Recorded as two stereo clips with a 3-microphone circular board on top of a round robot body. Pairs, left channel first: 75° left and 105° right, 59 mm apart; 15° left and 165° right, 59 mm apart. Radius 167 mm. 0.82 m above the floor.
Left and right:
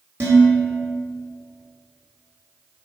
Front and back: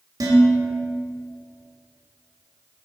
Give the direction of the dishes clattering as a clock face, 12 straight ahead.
5 o'clock.